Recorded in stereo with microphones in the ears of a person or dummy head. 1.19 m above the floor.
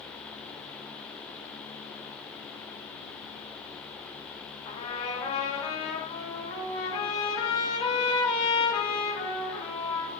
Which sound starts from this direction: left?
A trumpet, at 4.7 s.